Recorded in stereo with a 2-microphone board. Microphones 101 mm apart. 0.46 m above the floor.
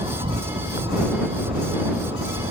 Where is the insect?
65° right (ahead or behind).